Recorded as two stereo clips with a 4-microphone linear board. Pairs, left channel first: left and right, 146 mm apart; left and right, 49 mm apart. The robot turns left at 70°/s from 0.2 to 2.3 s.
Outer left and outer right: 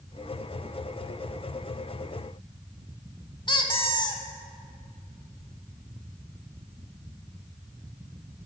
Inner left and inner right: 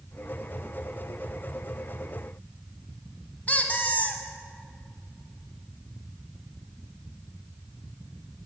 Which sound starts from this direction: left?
A squeak, at 3.5 s.